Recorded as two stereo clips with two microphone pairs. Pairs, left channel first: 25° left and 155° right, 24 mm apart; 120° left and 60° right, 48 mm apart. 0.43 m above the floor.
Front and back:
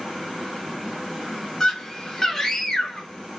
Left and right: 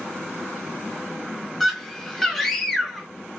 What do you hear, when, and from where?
1.6 s a scream: 40° left, 0.7 m